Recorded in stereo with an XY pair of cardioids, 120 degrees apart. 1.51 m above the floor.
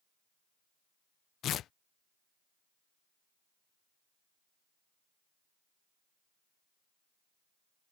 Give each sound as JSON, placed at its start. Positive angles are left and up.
{"t": 1.4, "sound": "tearing paper", "azimuth_deg": 60}